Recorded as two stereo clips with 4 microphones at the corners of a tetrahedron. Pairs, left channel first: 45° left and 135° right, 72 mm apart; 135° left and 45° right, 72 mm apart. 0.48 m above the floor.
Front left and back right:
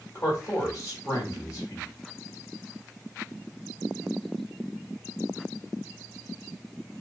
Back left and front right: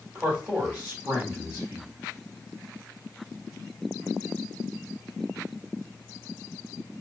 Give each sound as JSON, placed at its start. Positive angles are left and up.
{"t": 0.1, "sound": "a man speaking", "azimuth_deg": 20, "distance_m": 2.0}